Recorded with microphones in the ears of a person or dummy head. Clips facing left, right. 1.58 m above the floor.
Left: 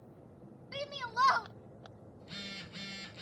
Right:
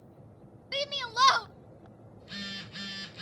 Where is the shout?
45° right (ahead or behind), 0.7 m.